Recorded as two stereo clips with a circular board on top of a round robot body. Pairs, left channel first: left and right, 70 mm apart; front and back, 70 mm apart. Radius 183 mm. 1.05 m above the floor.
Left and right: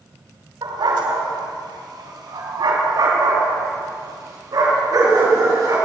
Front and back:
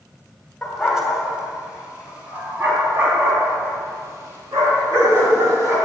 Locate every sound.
0.6 s a dog barking: 90° right, 2.5 m; by 5.8 s 130° right, 6 m